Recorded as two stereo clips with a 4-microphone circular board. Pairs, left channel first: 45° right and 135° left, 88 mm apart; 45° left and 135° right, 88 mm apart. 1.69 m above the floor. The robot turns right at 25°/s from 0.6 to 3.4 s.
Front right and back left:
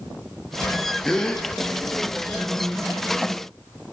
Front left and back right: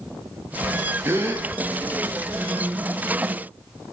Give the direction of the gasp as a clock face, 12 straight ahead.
4 o'clock.